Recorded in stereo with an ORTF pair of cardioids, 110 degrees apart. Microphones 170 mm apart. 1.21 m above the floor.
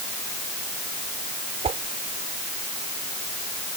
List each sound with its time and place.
1.6 s a whoosh: 35° right